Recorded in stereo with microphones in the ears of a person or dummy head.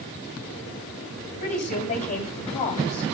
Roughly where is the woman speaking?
Left.